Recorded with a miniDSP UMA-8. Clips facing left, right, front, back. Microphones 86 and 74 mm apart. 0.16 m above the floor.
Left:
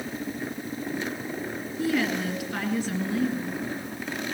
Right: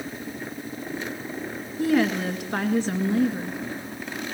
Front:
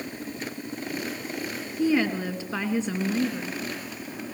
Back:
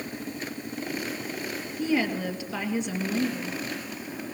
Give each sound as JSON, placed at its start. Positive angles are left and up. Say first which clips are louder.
{"t": 1.8, "sound": "a woman speaking", "louder": "right 4 dB, front 3 dB", "azimuth_deg": -45, "distance_m": 2.0}